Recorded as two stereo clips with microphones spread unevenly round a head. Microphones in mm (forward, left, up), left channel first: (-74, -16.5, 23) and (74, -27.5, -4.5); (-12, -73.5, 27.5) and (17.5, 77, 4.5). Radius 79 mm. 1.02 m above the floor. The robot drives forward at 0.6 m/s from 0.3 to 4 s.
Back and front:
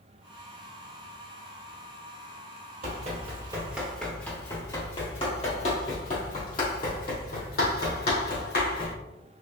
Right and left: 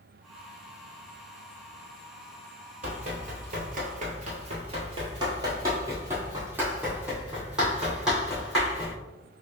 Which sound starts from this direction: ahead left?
Running footsteps, at 2.8 s.